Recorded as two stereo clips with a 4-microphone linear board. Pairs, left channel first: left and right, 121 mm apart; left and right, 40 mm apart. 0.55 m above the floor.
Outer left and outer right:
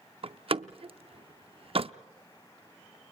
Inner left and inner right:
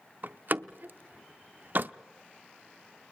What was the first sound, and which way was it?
A door slam, 50° right (ahead or behind).